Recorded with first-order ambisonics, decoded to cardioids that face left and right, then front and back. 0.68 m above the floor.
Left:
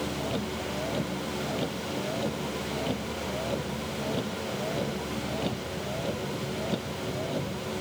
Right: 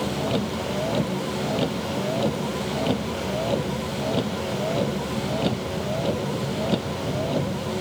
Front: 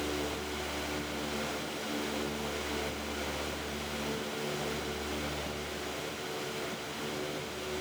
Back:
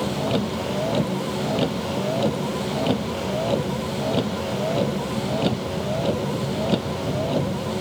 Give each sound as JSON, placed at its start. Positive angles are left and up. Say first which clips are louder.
{"t": 0.0, "sound": "a vehicle", "louder": "right 6 dB, back 10 dB", "azimuth_deg": -155}